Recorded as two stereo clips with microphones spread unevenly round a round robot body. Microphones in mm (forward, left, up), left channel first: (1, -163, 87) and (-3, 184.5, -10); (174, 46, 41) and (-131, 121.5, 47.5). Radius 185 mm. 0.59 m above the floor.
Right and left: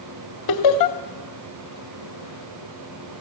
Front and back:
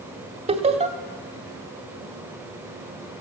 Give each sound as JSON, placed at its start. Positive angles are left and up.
{"t": 0.5, "sound": "laughter", "azimuth_deg": -125, "distance_m": 2.0}